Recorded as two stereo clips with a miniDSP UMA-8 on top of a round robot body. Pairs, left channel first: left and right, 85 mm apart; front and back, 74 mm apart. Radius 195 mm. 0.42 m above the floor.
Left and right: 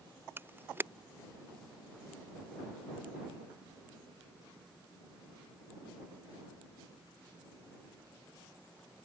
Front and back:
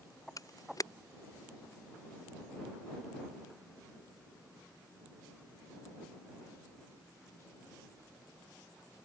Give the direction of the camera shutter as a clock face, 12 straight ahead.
1 o'clock.